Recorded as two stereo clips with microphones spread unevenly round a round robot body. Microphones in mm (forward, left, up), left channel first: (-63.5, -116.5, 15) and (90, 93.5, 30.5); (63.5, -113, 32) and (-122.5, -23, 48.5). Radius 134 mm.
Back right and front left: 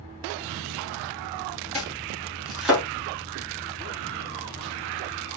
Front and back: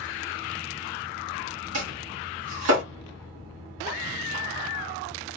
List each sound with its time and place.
1.7 s chopping: 145° left, 2.5 m